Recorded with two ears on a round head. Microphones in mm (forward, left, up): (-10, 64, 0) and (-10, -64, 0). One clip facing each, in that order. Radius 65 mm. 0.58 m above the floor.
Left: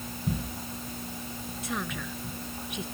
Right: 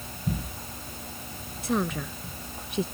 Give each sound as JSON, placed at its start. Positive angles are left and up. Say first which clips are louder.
{"t": 1.6, "sound": "a woman speaking", "louder": "right 8 dB", "side_deg": -35}